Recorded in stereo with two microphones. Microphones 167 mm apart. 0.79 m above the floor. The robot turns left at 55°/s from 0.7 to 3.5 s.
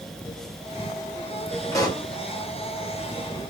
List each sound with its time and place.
1.7 s a pop: 15° left (ahead or behind), 1.0 m; by 2.1 s 30° left (ahead or behind), 1.0 m